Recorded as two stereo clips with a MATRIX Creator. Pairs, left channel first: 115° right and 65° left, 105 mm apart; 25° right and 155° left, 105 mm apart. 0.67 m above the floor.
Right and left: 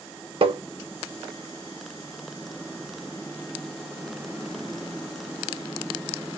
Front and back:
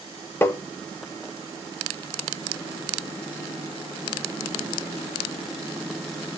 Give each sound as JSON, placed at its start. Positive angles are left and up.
{"t": 0.4, "sound": "tapping", "azimuth_deg": 45, "distance_m": 0.8}